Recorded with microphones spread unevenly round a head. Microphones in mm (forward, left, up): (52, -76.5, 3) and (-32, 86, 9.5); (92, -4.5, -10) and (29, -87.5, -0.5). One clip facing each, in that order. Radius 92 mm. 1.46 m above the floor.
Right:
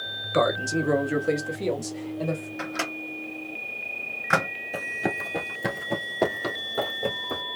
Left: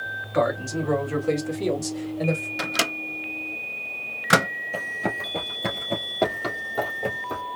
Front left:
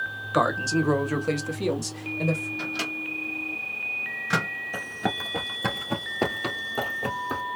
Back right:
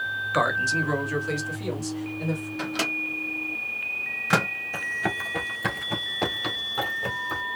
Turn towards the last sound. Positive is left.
turn(degrees=20)